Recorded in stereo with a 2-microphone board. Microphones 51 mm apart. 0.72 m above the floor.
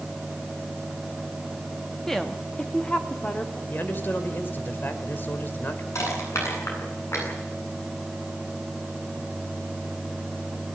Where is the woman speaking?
5° left (ahead or behind), 1.2 m; by 3.6 s 30° left (ahead or behind), 2 m.